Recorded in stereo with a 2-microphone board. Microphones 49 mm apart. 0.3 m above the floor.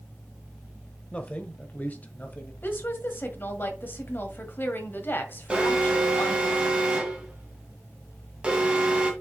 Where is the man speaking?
25° left (ahead or behind), 1.0 m; by 2.5 s 35° left (ahead or behind), 1.6 m.